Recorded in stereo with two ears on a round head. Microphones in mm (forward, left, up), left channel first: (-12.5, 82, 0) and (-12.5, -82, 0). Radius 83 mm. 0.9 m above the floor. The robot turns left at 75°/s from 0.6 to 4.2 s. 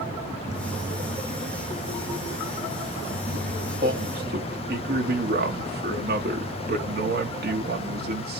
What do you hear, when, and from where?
3.8 s a man speaking: 55° right (ahead or behind), 1.0 m